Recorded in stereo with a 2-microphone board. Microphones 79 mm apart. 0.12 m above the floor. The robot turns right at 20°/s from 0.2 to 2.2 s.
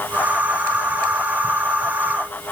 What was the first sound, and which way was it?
Only background noise.